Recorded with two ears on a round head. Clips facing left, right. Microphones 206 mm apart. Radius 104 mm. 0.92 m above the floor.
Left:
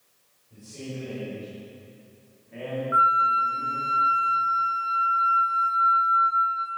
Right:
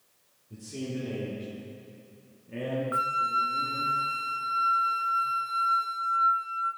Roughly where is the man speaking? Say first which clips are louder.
Right 3 dB; right.